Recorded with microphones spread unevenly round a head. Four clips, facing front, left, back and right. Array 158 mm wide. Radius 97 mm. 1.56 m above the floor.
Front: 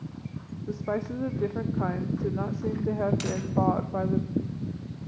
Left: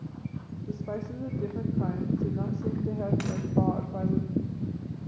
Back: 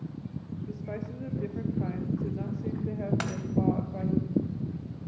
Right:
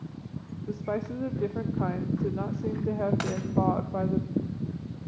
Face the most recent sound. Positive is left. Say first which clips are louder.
# right 2 dB, front 3 dB
turn(degrees=-135)